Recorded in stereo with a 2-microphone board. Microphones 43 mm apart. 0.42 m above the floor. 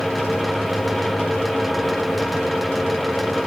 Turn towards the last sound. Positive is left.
No sound to turn to.